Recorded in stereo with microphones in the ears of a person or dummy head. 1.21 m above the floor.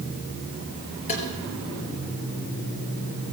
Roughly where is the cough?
No cough in this recording.